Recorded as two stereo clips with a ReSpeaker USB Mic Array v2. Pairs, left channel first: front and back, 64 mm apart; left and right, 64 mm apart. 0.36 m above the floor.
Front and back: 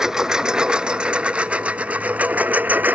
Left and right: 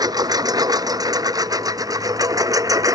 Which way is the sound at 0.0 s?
100° right.